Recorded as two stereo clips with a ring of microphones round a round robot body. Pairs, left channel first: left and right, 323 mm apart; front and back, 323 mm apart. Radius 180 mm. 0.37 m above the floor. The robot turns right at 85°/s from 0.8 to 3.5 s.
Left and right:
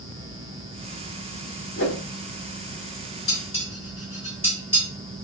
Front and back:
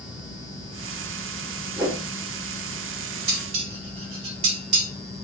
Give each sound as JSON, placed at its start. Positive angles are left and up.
{"t": 1.8, "sound": "a whoosh", "azimuth_deg": 95, "distance_m": 1.0}
{"t": 3.3, "sound": "dishes clattering", "azimuth_deg": 170, "distance_m": 1.2}